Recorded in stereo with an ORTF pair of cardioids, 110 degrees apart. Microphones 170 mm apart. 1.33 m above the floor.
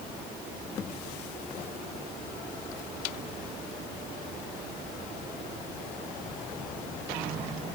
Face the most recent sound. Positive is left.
No sound to turn to.